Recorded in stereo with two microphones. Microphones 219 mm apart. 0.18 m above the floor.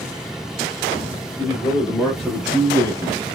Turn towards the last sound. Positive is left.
turn(degrees=-30)  # may be behind; listen again after turning